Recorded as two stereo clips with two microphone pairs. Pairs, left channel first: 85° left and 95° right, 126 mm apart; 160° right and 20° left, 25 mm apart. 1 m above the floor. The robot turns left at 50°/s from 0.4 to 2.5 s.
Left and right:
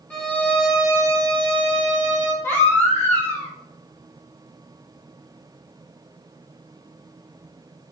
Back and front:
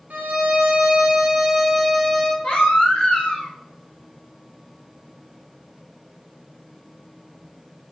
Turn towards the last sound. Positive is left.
turn(degrees=160)